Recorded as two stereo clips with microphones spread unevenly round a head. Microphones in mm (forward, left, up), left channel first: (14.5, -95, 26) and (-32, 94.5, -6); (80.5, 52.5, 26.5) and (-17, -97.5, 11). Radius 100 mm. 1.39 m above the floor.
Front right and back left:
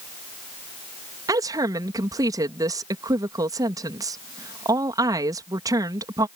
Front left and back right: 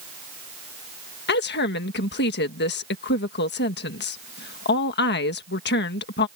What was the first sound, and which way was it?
A woman speaking, 30° left.